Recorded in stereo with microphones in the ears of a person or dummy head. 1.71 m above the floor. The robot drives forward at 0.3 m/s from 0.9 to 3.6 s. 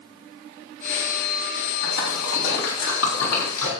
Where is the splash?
85° left, 4 m; by 3.7 s 80° left, 4 m.